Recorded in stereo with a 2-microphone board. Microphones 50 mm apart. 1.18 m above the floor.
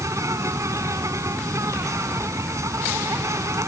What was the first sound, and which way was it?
An insect, 85° right.